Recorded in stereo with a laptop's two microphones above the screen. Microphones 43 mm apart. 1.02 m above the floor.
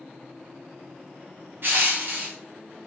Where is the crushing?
50° right (ahead or behind), 0.8 m.